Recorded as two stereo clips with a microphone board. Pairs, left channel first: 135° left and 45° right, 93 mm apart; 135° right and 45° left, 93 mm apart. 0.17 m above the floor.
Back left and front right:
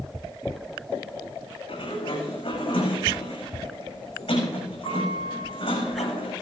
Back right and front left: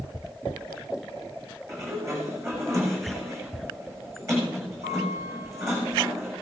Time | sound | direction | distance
1.7 | a sliding door | 105° left | 7.5 m